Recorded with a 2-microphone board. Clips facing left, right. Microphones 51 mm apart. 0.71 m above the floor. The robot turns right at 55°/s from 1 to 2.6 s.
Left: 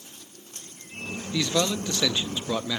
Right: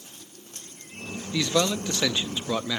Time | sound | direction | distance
1.3 | a man speaking | 15° right (ahead or behind) | 0.5 m